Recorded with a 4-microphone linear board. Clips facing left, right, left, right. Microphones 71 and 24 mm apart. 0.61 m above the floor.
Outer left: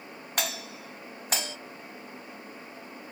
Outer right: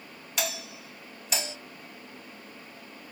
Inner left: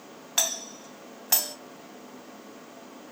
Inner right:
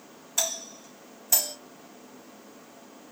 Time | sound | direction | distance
0.4 | a doorbell | 50° left (ahead or behind) | 2.5 m